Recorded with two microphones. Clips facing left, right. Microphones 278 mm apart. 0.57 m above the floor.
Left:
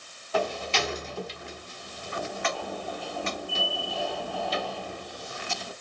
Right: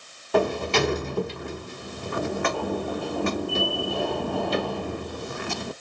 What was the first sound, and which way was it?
A sliding door, 60° right (ahead or behind).